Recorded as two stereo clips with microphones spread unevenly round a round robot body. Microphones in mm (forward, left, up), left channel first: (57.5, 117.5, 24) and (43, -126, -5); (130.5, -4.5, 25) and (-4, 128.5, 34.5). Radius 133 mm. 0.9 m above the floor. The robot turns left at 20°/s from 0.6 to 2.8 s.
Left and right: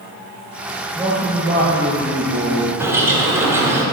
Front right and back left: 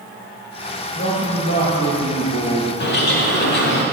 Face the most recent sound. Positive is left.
turn(degrees=-10)